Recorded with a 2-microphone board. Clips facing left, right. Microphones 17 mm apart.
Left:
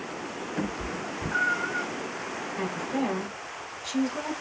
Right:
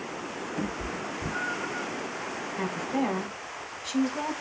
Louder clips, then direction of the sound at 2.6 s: Right 1 dB; 10° left (ahead or behind).